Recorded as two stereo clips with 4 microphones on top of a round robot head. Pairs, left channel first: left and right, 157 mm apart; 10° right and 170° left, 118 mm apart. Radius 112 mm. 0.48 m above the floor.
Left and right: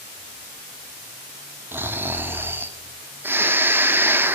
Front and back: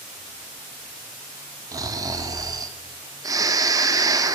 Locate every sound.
1.7 s snoring: 160° right, 0.8 m